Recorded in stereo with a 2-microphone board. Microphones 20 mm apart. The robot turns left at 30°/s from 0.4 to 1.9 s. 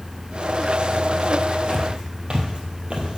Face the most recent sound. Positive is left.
turn(degrees=-50)  # may be behind; listen again after turning